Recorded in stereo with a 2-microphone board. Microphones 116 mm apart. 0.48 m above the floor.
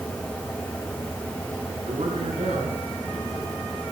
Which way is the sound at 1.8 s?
75° right (ahead or behind).